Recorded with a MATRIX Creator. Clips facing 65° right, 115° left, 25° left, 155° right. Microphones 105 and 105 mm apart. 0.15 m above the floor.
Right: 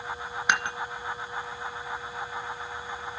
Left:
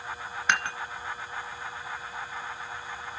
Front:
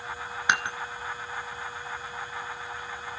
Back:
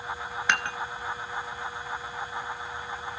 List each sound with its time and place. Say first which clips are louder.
0.5 s dishes clattering: right 1 dB, front 1 dB; 15° right, 1.0 m